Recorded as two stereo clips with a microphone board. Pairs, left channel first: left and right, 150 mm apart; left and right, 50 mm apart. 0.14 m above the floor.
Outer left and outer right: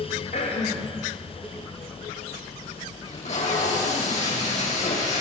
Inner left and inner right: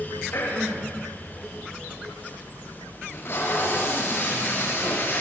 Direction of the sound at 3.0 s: 55° left (ahead or behind).